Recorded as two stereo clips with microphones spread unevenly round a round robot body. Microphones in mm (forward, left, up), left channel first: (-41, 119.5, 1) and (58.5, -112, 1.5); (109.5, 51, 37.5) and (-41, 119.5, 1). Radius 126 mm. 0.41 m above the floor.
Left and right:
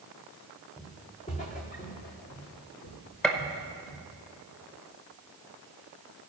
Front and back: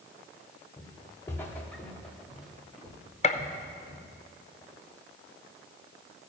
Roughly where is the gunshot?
Ahead left.